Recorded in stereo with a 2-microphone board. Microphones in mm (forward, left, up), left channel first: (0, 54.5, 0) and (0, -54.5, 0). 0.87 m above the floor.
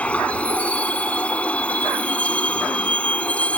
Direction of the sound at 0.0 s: 10° left (ahead or behind).